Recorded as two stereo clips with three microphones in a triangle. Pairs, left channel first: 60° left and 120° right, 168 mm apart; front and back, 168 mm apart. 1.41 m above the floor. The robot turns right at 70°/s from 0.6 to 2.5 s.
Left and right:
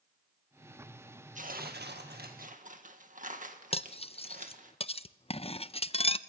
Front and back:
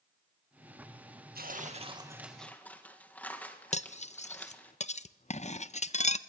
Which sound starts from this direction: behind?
Tearing paper, at 1.4 s.